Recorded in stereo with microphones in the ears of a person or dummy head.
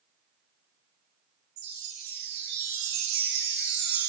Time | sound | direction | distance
1.6 | a chime | 45° right (ahead or behind) | 0.6 m